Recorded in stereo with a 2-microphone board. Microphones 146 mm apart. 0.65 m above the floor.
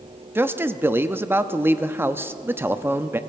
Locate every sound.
0.3 s a man speaking: 15° right (ahead or behind), 0.5 m